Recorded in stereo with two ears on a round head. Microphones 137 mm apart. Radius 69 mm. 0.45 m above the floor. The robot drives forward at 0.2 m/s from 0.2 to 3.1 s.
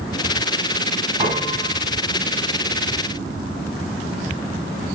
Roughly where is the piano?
Right.